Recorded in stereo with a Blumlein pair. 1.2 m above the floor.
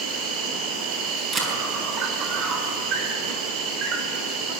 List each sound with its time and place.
0.0 s an insect: 35° right, 3 m
1.3 s a camera shutter: 20° right, 6 m